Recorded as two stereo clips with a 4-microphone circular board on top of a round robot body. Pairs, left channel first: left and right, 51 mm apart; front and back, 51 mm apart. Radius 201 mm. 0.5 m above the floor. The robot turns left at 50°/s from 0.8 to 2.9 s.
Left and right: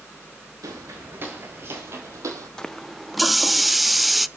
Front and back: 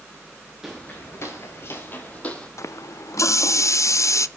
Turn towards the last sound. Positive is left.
turn(degrees=0)